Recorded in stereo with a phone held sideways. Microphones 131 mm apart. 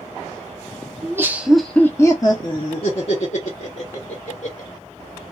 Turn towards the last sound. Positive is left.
turn(degrees=70)  # may be behind; listen again after turning